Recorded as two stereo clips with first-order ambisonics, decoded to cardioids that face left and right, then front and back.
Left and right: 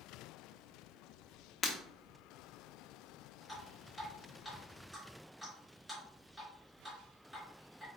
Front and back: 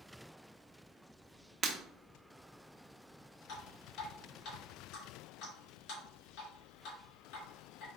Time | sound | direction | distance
1.6 | breaking glass | 140° left | 0.7 m
3.5 | dripping | 10° right | 2 m